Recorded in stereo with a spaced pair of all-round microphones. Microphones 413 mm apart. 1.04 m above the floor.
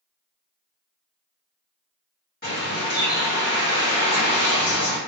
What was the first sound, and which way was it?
A bird, 20° left (ahead or behind).